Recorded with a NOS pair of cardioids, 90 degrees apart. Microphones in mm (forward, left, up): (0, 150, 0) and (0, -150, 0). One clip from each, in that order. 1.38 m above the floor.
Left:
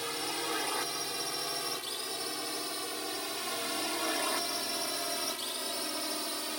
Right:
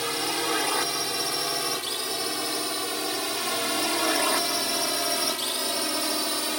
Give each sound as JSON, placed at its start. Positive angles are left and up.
{"t": 0.0, "sound": "a drone", "azimuth_deg": -60}